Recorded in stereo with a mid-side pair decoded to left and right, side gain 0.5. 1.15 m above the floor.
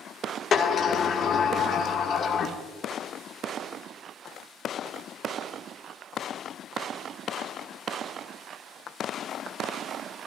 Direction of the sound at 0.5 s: 50° left.